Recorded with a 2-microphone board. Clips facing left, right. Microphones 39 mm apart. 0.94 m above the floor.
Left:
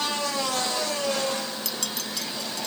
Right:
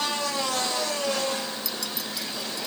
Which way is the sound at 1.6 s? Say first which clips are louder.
Left 1 dB; 65° left (ahead or behind).